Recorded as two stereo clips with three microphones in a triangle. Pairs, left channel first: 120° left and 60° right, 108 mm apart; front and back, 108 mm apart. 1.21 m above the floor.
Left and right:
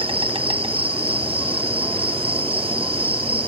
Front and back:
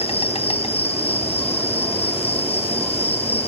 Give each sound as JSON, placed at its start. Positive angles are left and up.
{"t": 0.0, "sound": "an insect", "azimuth_deg": -25, "distance_m": 0.8}